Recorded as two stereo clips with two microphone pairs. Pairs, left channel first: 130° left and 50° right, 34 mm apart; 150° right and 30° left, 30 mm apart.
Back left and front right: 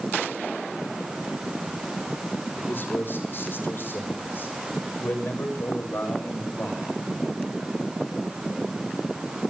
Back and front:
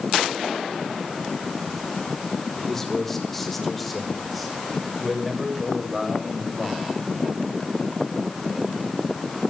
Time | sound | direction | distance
2.7 | a man speaking | 135° left | 4 m